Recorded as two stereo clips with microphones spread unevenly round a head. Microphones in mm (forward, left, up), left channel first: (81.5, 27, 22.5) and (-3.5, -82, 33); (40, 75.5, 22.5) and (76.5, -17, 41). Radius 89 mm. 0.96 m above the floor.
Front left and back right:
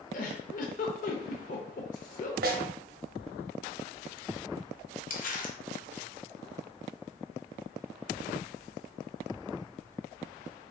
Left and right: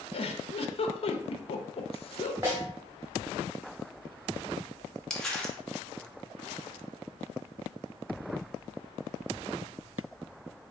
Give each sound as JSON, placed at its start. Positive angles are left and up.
{"t": 0.1, "sound": "a giggle", "azimuth_deg": 90, "distance_m": 0.8}
{"t": 2.4, "sound": "a snare drum", "azimuth_deg": -140, "distance_m": 0.9}
{"t": 5.1, "sound": "crumpling", "azimuth_deg": 30, "distance_m": 1.2}